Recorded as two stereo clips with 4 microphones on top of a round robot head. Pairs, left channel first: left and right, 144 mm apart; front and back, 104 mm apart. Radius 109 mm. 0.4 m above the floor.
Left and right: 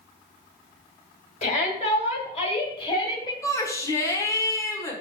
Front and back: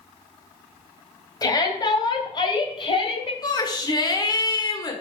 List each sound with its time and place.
1.4 s a shout: 50° left, 2.5 m; by 3.3 s 25° left, 2 m
3.4 s a shout: 30° left, 1.3 m